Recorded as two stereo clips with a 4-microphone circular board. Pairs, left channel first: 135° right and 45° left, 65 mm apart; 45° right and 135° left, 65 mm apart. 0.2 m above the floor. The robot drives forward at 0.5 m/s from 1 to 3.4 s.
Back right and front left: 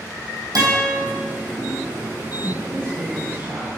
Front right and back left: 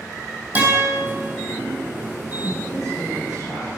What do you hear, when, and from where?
0.6 s a guitar: 70° left, 4.5 m
2.4 s a woman speaking: 20° left, 4 m; by 3.7 s 25° left, 3.5 m